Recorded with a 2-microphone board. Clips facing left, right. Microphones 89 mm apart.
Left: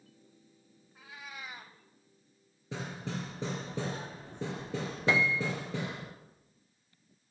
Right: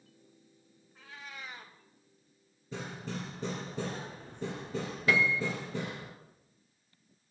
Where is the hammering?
80° left, 3 m.